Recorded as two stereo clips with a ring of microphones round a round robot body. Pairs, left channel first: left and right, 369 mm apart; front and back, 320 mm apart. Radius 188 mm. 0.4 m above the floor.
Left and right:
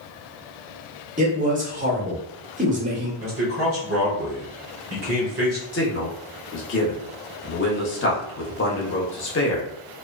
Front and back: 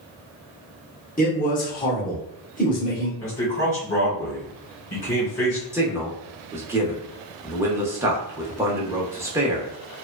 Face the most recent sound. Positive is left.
turn(degrees=105)